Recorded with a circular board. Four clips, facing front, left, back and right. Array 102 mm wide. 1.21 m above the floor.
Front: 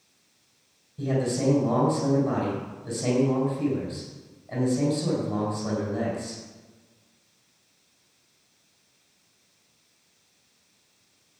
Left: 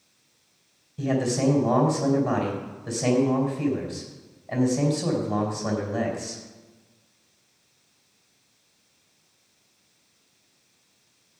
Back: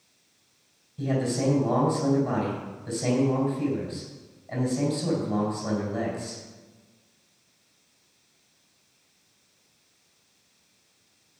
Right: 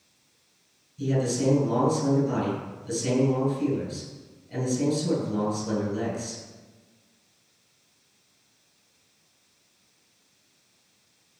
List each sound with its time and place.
1.0 s a man speaking: 90° left, 4.5 m